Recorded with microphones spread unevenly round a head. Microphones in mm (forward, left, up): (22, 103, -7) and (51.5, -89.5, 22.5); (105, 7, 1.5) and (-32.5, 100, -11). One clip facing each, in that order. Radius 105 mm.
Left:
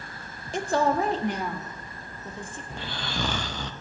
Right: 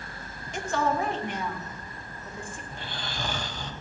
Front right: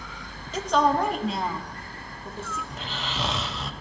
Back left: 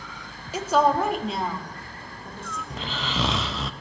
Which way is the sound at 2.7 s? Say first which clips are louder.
Left 7 dB, back left 3 dB; 135° left.